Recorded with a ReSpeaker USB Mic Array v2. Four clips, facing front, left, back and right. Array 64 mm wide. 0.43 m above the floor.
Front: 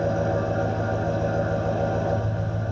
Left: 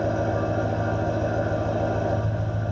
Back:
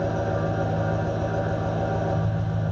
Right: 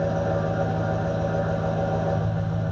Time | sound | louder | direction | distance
0.0 | an engine running | even, front 2 dB | 50° left | 6 m